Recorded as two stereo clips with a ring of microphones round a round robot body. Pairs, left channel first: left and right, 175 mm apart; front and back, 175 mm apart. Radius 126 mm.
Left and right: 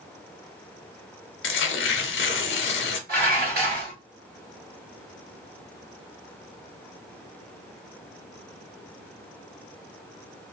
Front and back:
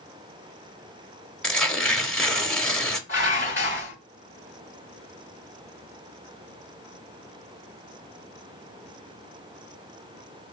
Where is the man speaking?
No man speaking in this recording.